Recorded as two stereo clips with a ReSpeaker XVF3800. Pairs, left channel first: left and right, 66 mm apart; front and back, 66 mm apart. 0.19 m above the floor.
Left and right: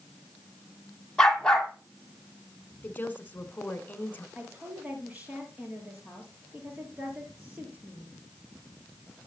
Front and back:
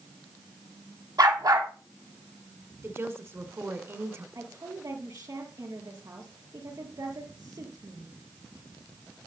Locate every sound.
1.2 s a dog barking: 170° left, 2 m
2.8 s a woman speaking: 145° left, 1.6 m
4.3 s a woman speaking: 155° right, 5 m